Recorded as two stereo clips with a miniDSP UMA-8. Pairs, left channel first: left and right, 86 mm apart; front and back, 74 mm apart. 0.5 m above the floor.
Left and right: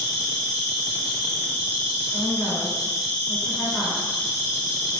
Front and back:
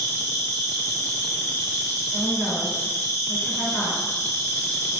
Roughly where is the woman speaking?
Ahead left.